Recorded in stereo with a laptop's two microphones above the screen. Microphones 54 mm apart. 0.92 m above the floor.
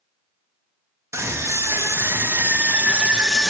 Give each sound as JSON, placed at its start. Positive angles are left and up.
{"t": 1.1, "sound": "a scream", "side_deg": -60, "distance_m": 1.5}